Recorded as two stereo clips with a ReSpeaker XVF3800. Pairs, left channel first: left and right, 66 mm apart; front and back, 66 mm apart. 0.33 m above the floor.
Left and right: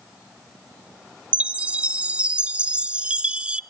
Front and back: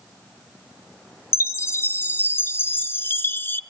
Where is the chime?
30° right, 0.6 m.